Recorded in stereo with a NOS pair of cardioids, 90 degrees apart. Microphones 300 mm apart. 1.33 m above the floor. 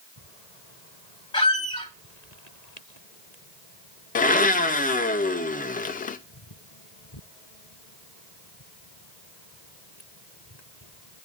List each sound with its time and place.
1.3 s a squeak: 15° left, 1.3 m
4.2 s a blender: 30° left, 0.6 m